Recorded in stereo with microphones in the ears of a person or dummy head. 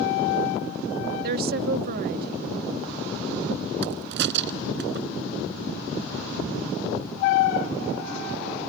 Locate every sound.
1.2 s a woman speaking: 55° right (ahead or behind)
3.8 s a crack: 65° right (ahead or behind)